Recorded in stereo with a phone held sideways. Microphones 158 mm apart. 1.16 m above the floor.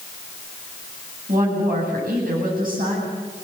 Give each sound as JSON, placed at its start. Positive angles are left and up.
{"t": 1.3, "sound": "a woman speaking", "side_deg": -65, "distance_m": 8.0}